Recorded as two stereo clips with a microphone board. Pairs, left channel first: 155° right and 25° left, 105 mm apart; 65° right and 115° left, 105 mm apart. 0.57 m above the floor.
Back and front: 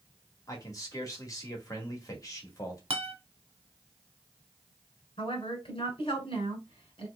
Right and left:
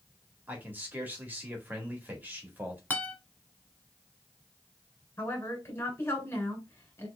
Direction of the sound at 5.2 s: 130° right.